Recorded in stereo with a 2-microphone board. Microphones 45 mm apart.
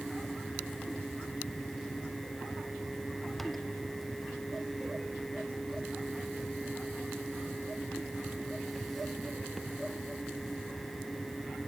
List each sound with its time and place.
Only background noise.